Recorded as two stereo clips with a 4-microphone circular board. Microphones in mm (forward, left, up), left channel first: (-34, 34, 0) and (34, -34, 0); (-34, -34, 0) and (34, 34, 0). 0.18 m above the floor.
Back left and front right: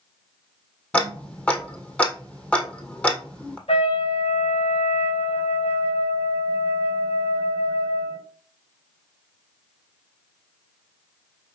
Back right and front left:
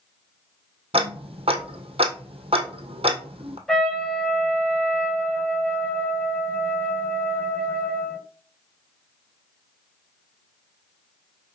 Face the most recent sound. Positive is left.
turn(degrees=140)